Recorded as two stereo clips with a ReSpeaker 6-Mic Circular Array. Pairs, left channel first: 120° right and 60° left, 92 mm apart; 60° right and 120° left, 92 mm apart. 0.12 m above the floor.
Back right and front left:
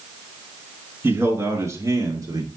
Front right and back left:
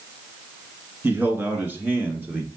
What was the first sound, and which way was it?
A man speaking, 90° left.